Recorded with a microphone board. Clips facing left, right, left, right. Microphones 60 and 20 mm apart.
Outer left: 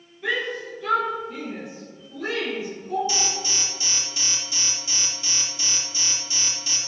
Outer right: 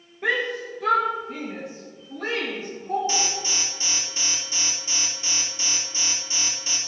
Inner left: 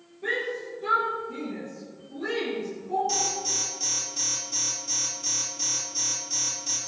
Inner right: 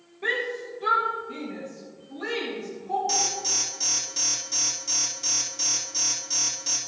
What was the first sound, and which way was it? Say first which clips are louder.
A shout: outer right 2 dB, inner right 2 dB; 55° right (ahead or behind).